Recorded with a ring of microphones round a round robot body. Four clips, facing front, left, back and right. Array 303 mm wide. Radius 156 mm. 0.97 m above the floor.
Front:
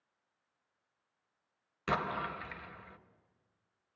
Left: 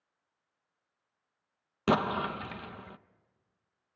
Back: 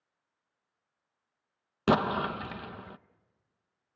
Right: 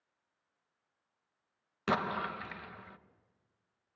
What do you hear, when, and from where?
1.9 s an explosion: 155° left, 0.7 m